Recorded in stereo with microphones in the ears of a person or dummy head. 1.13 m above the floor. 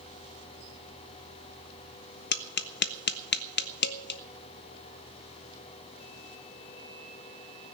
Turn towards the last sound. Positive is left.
turn(degrees=55)  # may be behind; listen again after turning